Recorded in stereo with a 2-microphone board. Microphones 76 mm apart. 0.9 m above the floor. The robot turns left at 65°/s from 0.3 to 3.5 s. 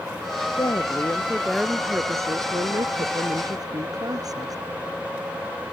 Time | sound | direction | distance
0.6 | a woman speaking | 65° left | ?